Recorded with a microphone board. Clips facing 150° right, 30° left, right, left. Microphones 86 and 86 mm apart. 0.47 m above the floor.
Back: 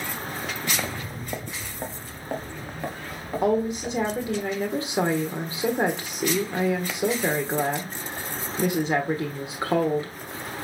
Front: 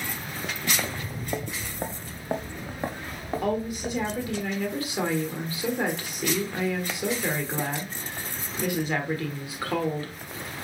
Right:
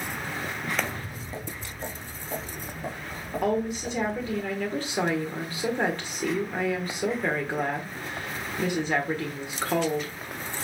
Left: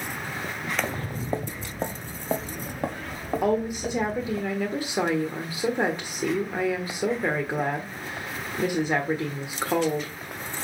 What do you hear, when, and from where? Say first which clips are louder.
0.8 s footsteps: back 1 dB, left 4 dB; 130° left, 0.6 m; by 4.4 s 100° left, 3.5 m
3.4 s a woman speaking: back 6 dB, left 1 dB; 160° left, 1.3 m